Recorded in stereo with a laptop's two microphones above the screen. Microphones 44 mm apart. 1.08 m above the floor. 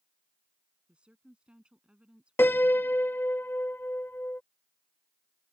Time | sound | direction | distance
0.9 | a woman speaking | 25° right (ahead or behind) | ?
2.4 | a piano | 60° left (ahead or behind) | ?